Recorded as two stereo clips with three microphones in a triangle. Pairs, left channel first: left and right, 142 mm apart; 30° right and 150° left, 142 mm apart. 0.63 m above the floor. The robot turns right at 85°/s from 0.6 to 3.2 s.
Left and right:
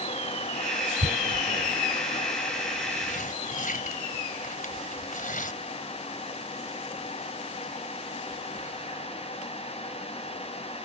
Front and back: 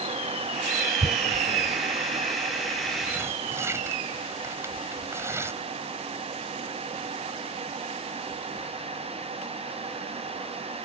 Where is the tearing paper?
105° right; by 5.5 s 80° left.